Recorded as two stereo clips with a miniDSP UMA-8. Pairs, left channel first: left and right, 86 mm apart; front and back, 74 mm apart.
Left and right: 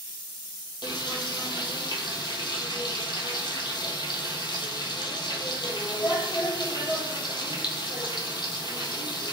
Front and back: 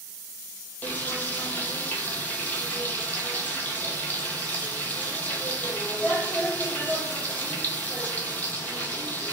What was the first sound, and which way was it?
Frying, 65° left.